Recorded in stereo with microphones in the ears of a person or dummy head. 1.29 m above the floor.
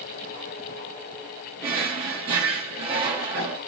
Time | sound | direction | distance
1.6 | a drawer | 30° right (ahead or behind) | 0.6 m